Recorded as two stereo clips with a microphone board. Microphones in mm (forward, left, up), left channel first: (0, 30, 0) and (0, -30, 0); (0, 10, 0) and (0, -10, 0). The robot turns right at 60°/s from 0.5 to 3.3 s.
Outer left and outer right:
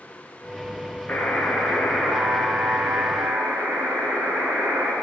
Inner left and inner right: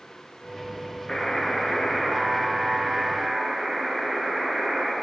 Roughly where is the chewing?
I don't hear chewing.